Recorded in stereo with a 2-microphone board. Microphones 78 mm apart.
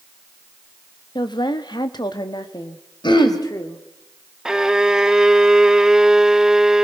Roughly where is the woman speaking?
Left.